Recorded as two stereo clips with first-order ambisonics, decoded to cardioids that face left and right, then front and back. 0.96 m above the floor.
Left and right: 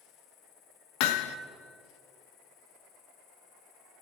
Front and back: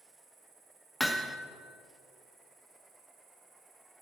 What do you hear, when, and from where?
0.0 s an insect: 115° left, 4.5 m
1.0 s hammering: 90° left, 0.6 m